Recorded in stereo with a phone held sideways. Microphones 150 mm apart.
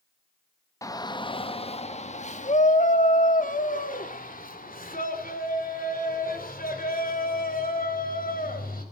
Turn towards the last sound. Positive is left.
turn(degrees=75)  # may be behind; listen again after turning